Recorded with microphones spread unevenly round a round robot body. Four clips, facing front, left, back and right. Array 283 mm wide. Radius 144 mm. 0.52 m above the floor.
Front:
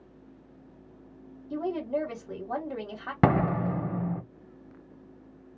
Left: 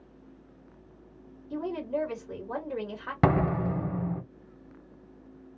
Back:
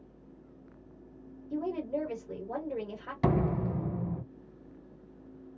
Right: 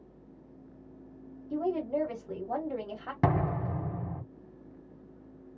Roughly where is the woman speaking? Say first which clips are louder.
Right 1 dB, front 3 dB; ahead right.